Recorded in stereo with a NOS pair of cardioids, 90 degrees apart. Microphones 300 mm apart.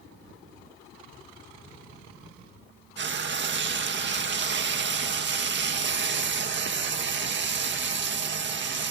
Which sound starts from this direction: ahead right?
Frying, at 3.0 s.